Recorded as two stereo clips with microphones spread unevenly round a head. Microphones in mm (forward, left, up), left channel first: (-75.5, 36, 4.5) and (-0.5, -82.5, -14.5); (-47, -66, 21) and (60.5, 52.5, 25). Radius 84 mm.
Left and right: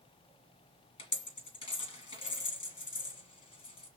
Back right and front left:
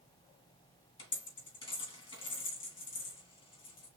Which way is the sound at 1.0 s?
165° left.